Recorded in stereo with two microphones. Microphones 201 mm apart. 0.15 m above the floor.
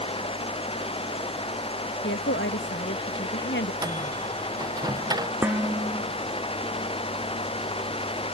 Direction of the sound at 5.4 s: 10° right (ahead or behind).